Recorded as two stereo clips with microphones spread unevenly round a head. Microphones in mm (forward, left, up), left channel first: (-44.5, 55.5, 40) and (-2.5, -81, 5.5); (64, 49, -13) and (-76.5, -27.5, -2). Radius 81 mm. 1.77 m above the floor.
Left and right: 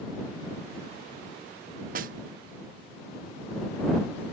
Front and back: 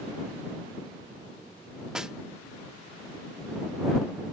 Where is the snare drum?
75° right.